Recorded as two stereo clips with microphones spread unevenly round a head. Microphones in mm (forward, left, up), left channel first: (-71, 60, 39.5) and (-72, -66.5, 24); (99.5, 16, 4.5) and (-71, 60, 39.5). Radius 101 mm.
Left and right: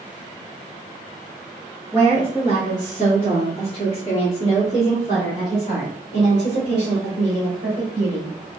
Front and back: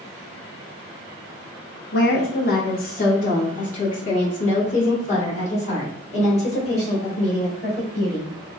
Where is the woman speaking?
5° left, 0.8 m; by 8.5 s 40° left, 4.5 m.